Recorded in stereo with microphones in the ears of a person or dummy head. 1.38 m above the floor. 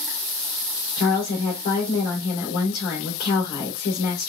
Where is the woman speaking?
60° left (ahead or behind), 1.9 m.